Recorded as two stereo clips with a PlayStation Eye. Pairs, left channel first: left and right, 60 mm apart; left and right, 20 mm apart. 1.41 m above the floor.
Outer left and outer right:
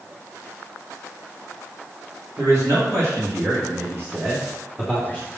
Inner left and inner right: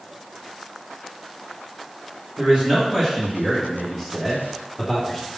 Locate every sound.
2.4 s a man speaking: 55° right (ahead or behind), 2.5 m; by 5.3 s 15° right (ahead or behind), 2 m